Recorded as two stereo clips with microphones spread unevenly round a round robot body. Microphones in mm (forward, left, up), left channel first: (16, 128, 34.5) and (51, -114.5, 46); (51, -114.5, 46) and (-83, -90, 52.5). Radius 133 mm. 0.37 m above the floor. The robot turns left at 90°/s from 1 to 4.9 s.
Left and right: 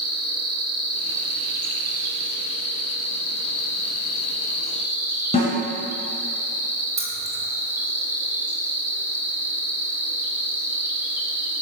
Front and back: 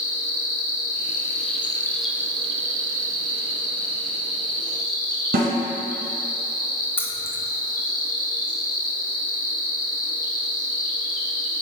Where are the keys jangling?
55° right, 0.5 m.